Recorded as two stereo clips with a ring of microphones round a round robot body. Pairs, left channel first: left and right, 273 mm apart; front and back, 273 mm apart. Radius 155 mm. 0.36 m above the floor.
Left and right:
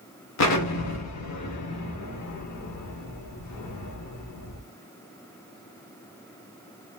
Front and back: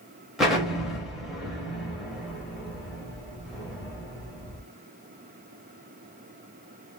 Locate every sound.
0.4 s an explosion: 90° left, 0.8 m